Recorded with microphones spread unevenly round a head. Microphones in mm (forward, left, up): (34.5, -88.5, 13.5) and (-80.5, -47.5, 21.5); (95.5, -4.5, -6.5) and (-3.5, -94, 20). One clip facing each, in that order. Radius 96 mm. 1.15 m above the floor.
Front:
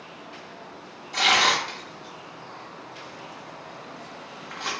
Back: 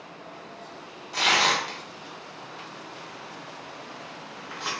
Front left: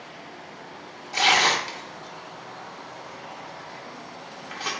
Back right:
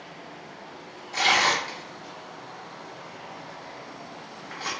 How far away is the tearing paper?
About 0.6 m.